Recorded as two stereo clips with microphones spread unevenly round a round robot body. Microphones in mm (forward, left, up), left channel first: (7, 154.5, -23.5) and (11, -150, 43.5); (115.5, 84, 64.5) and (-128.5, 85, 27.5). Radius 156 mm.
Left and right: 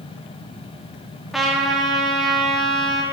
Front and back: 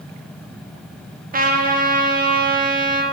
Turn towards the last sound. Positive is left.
turn(degrees=165)